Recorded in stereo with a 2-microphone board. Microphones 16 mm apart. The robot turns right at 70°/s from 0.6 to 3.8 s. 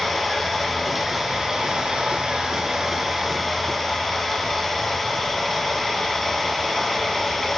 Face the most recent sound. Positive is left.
turn(degrees=35)